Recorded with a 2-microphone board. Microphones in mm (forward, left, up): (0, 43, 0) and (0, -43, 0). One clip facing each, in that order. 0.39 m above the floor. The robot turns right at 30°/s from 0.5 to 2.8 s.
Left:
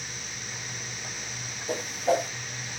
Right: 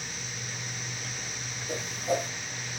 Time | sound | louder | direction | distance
1.7 | a whoosh | left 4 dB | 75° left (ahead or behind) | 0.5 m